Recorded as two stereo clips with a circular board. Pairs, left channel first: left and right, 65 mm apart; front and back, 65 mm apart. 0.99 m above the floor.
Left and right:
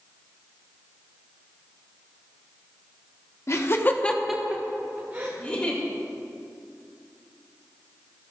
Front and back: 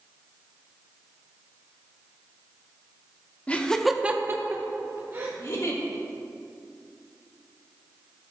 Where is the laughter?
60° left, 1.0 m; by 5.3 s 145° right, 1.8 m.